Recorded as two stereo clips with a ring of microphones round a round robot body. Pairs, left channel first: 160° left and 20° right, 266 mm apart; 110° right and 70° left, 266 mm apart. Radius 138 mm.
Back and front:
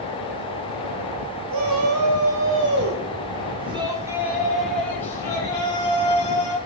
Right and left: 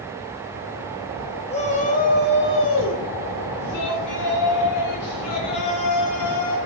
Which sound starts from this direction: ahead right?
A shout, at 1.5 s.